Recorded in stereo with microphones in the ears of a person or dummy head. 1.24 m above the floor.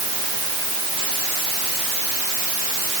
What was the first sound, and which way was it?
Only background noise.